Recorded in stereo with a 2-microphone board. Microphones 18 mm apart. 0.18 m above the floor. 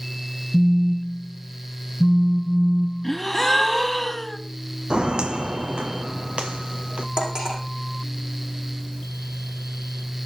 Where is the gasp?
10° left (ahead or behind), 1.5 m.